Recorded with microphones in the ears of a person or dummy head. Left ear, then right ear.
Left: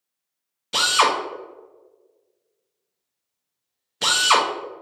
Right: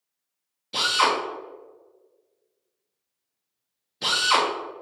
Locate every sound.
0.7 s a drill: 45° left (ahead or behind), 0.8 m